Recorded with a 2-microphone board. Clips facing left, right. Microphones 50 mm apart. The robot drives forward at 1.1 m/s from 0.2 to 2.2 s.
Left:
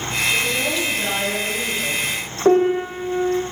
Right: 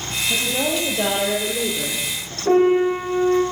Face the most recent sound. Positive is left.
turn(degrees=60)  # may be behind; listen again after turning